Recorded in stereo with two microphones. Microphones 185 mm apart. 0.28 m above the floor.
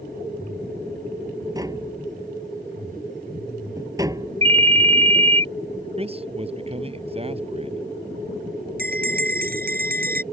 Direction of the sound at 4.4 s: 40° right (ahead or behind).